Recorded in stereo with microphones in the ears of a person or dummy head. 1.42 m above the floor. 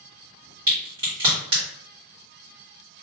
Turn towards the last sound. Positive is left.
turn(degrees=-25)  # may be behind; listen again after turning